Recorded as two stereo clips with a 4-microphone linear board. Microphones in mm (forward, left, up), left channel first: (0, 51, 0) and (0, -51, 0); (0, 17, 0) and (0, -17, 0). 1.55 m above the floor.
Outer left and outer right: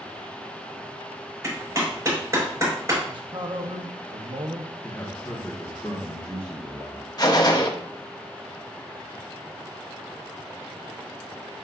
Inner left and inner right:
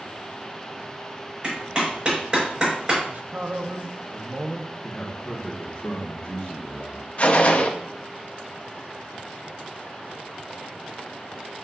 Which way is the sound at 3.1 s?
50° right (ahead or behind).